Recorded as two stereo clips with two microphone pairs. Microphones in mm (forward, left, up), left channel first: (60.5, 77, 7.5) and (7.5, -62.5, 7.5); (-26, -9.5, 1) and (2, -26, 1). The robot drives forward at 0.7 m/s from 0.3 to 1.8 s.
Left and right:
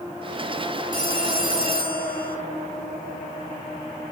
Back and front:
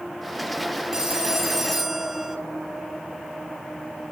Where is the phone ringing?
40° left, 2.0 m; by 2.4 s 55° left, 1.6 m.